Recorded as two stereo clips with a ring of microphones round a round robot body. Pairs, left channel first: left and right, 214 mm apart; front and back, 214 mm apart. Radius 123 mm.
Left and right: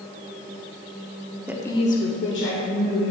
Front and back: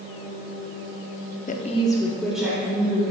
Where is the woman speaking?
15° right, 0.8 m; by 3.1 s 105° left, 2.5 m.